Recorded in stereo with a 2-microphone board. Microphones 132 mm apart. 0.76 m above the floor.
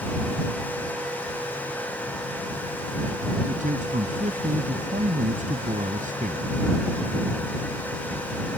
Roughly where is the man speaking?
Right.